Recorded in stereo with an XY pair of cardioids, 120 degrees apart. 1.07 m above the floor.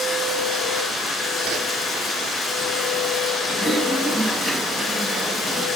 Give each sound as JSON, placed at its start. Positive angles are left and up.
{"t": 0.0, "sound": "a machine running", "azimuth_deg": 35, "distance_m": 7.0}
{"t": 1.4, "sound": "a whoosh", "azimuth_deg": -60, "distance_m": 3.5}
{"t": 3.5, "sound": "typing on a keyboard", "azimuth_deg": -5, "distance_m": 5.0}